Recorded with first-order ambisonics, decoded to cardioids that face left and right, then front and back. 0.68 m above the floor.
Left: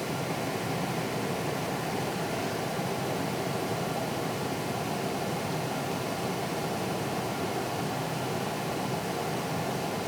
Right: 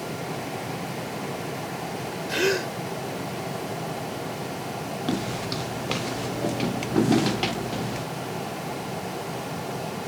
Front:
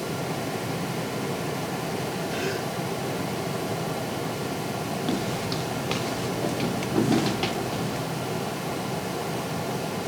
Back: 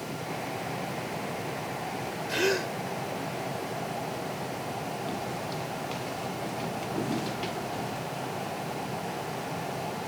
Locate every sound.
2.3 s a gasp: 115° right
5.1 s footsteps: 55° right; by 8.1 s 65° right